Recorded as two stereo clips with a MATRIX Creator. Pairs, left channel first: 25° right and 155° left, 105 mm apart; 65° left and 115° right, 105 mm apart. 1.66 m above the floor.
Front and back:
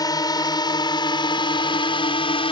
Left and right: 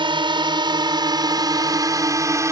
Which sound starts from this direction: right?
A drone, at 0.0 s.